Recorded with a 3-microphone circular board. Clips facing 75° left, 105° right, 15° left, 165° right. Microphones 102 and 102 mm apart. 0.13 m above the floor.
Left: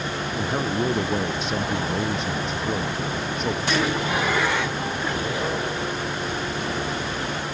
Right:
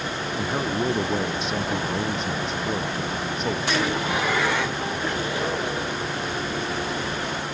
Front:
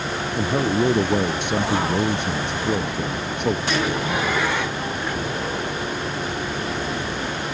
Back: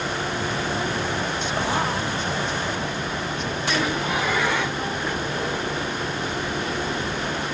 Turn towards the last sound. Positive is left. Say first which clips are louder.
# left 1 dB, front 5 dB
turn(degrees=-15)